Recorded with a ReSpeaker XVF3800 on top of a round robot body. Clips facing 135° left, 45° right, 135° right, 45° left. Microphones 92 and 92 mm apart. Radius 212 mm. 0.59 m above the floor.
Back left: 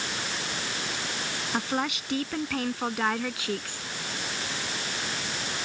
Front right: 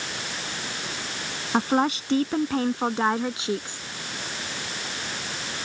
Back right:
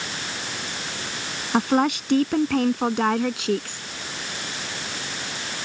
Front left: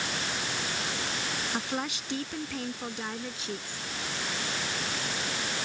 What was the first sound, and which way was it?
A woman speaking, 100° right.